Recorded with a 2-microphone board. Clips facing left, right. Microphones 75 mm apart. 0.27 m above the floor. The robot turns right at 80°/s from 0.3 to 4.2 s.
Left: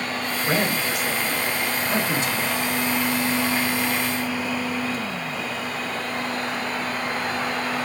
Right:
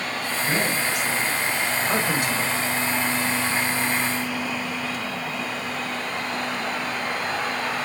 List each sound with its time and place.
0.5 s a man speaking: 55° left (ahead or behind), 3.5 m; by 2.5 s 65° right (ahead or behind), 3.5 m